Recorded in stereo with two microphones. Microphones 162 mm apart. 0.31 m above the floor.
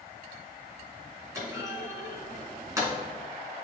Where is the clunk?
20° right (ahead or behind), 2.5 m.